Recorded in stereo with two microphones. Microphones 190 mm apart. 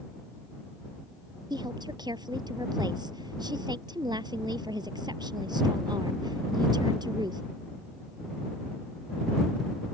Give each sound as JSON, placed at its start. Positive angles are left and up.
{"t": 1.5, "sound": "a woman speaking", "side_deg": -20}